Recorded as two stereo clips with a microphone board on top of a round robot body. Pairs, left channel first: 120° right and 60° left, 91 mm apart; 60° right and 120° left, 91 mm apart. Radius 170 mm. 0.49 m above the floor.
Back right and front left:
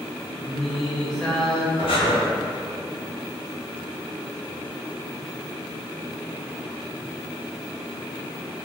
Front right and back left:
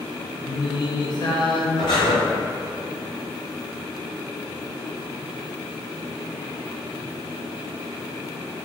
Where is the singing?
35° right, 0.6 m.